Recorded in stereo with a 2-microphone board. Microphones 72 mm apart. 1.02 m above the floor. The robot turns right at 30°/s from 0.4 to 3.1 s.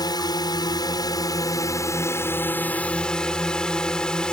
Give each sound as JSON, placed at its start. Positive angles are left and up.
{"t": 0.0, "sound": "a drone", "azimuth_deg": 85}